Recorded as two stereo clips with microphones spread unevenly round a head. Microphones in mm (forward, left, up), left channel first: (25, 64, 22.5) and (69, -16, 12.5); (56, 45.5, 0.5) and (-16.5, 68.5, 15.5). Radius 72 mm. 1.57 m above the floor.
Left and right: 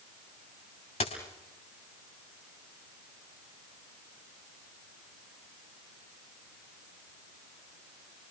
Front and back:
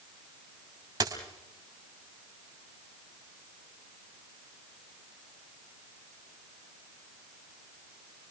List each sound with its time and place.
1.0 s a dropped coin: 145° left, 3 m